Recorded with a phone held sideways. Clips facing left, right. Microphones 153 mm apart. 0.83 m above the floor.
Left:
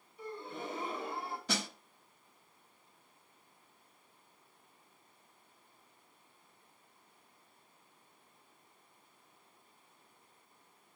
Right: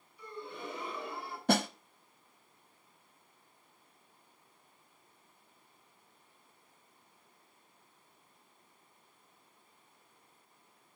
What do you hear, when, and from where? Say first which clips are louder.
0.2 s a gasp: left 1 dB; 45° left (ahead or behind), 2.5 m
1.5 s a snare drum: right 11 dB; 60° right (ahead or behind), 0.7 m